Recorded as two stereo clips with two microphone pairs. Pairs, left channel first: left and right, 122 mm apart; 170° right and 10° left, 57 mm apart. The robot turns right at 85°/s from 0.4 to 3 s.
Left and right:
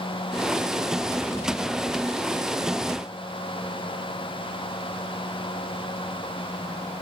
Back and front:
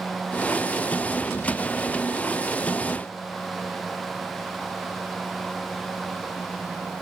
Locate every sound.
Only background noise.